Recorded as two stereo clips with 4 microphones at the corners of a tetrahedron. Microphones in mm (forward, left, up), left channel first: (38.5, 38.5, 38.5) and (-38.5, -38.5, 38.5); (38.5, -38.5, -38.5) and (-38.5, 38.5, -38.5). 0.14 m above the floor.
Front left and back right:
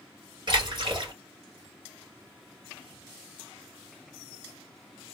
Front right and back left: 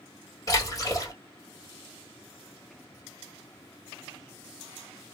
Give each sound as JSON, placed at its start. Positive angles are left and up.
{"t": 0.5, "sound": "a splash", "azimuth_deg": -100, "distance_m": 3.0}